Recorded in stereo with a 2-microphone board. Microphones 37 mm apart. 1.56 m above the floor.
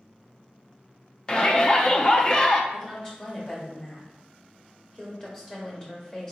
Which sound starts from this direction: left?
A shout, at 1.3 s.